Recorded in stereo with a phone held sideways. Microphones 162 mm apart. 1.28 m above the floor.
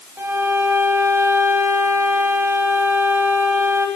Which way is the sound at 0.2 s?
15° right (ahead or behind).